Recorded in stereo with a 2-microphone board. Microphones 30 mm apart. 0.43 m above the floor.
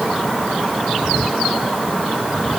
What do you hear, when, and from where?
Only background noise.